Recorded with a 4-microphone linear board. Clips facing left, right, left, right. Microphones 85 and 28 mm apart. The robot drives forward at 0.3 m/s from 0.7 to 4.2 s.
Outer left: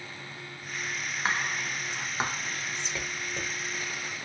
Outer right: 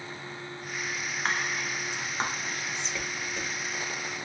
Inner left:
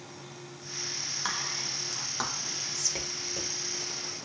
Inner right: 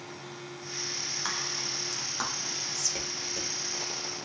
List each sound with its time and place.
1.2 s whispering: 5° left (ahead or behind), 0.8 m